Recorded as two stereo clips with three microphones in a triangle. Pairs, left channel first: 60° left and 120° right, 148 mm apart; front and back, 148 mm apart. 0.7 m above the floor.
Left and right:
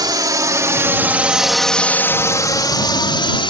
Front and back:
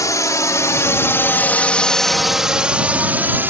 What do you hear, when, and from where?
0.0 s a drone: 65° right; by 3.5 s 105° left